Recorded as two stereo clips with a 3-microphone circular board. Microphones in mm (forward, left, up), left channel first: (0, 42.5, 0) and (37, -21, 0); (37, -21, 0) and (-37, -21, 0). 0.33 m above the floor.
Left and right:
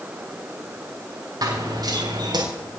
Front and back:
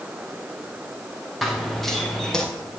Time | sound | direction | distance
1.4 | running footsteps | 90° right | 4.5 m